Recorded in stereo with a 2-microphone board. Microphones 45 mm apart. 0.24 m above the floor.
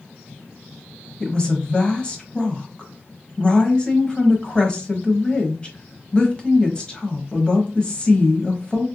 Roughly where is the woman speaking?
Left.